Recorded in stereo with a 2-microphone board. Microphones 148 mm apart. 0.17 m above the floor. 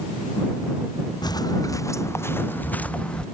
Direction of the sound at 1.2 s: 25° left (ahead or behind).